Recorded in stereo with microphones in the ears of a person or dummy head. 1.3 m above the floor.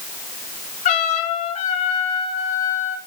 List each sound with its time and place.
0.8 s a trumpet: 45° left (ahead or behind), 3 m